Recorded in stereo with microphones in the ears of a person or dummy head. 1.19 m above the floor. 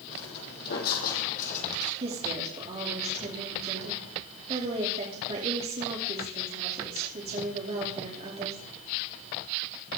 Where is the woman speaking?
35° right (ahead or behind), 3 m.